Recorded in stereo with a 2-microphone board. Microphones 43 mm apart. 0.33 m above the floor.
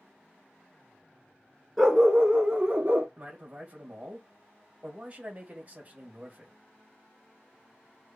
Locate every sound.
1.8 s a dog barking: 10° right (ahead or behind), 1.1 m; by 3.1 s 40° right (ahead or behind), 1.3 m
3.2 s a man speaking: 35° right (ahead or behind), 1.4 m